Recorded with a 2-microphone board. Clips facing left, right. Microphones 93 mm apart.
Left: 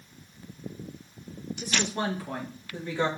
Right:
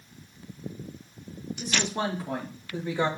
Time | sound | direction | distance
1.6 | a woman speaking | 25° right (ahead or behind) | 4 m